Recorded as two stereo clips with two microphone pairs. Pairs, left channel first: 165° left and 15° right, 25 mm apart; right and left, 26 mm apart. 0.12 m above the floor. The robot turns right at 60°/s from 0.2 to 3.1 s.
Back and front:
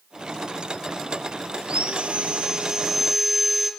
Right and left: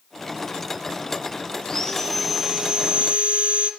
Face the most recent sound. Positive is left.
turn(degrees=60)